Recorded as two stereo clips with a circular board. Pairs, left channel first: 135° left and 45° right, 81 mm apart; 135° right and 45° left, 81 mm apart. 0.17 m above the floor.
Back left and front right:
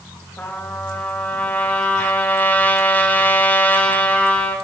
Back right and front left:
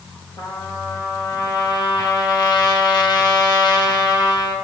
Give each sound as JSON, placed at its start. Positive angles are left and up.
{"t": 0.4, "sound": "a trumpet", "azimuth_deg": -150, "distance_m": 3.5}